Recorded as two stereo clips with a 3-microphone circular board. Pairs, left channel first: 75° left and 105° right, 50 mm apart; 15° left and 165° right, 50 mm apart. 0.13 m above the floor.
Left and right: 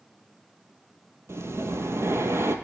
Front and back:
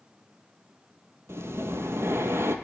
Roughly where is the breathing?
Behind right.